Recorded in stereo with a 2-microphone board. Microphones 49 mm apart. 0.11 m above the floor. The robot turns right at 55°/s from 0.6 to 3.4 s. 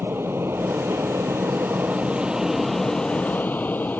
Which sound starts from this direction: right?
An aircraft, at 0.0 s.